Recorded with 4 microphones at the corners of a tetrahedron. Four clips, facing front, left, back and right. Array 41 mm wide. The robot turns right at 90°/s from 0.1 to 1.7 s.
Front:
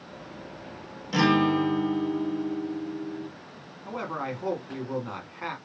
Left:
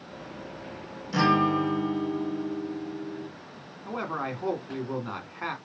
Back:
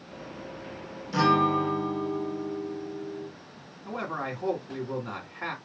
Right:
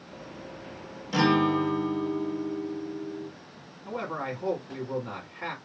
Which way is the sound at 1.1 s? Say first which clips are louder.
Even, even; 40° right.